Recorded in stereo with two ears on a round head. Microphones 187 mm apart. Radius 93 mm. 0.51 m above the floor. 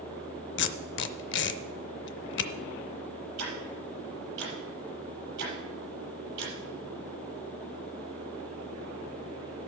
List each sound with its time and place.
0.6 s tape being pulled: 55° left (ahead or behind), 0.6 m
3.4 s ticking: 55° right (ahead or behind), 6 m